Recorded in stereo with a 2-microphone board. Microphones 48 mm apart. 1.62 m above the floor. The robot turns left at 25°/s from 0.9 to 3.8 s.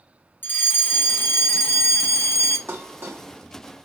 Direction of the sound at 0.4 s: 130° left.